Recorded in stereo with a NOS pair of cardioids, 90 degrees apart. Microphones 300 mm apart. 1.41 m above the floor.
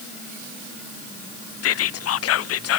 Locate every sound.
1.6 s whispering: 55° left, 0.6 m